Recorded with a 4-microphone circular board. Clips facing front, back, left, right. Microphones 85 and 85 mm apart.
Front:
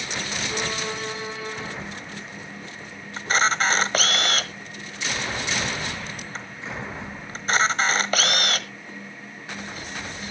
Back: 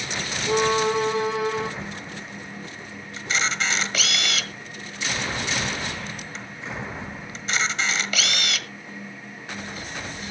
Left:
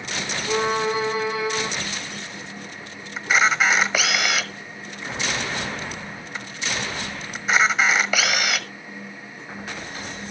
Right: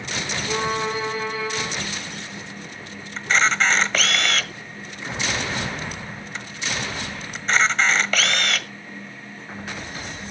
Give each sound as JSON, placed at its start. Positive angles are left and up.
{"t": 0.5, "sound": "a violin", "azimuth_deg": 165, "distance_m": 5.0}
{"t": 3.2, "sound": "a camera shutter", "azimuth_deg": 10, "distance_m": 1.4}